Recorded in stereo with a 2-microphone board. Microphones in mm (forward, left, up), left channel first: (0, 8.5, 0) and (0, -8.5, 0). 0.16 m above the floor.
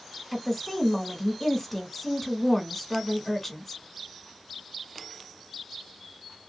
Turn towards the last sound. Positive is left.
turn(degrees=15)  # may be behind; listen again after turning